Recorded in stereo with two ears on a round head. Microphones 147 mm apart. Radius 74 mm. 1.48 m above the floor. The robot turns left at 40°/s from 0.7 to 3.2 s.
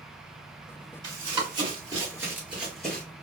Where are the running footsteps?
25° right (ahead or behind), 1.9 m; by 3.0 s 10° left (ahead or behind), 1.4 m.